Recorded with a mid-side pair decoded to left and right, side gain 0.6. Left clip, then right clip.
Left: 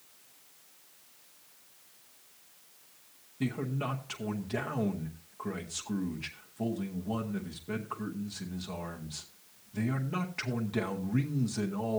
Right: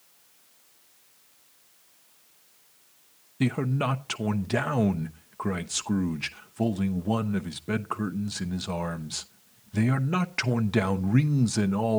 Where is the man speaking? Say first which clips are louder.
Right 7 dB; 55° right, 0.9 m.